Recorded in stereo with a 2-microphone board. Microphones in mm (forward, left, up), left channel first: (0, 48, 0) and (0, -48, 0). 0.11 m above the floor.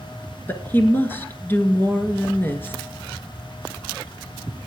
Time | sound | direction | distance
0.5 | a woman speaking | 25° left (ahead or behind) | 1.4 m